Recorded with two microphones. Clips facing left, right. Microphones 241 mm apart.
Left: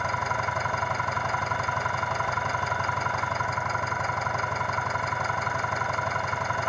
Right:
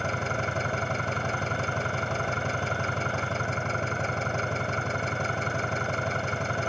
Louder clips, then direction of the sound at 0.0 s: Right 2 dB; 30° right (ahead or behind).